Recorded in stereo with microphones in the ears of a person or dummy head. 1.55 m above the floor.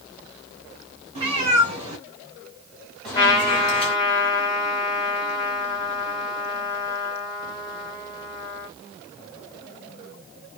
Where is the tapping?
I don't hear tapping.